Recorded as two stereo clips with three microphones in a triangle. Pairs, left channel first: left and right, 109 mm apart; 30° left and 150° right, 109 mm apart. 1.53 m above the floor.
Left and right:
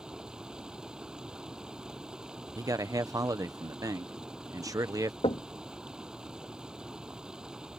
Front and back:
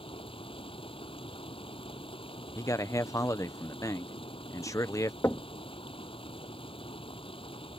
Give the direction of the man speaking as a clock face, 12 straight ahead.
1 o'clock.